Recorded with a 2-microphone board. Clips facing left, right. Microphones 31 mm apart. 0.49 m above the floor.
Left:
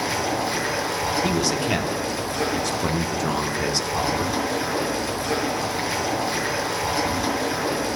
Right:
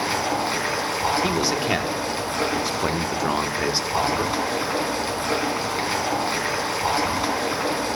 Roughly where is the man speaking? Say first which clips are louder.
Even; centre.